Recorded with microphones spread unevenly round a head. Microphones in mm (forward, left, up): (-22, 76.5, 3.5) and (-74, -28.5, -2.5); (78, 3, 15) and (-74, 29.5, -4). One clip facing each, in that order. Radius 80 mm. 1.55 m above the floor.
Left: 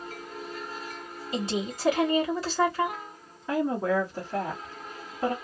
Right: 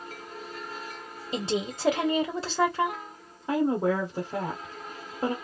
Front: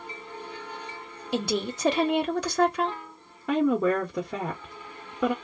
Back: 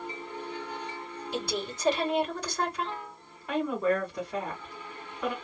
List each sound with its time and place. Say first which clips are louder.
1.3 s a woman speaking: right 1 dB, front 6 dB; 45° right, 1.0 m
3.5 s a woman speaking: right 1 dB, front 5 dB; 40° right, 1.0 m